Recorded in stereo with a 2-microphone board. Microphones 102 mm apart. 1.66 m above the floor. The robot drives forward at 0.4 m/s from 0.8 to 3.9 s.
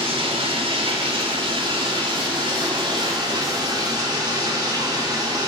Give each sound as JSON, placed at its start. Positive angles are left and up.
{"t": 0.0, "sound": "running water", "side_deg": -60, "distance_m": 2.5}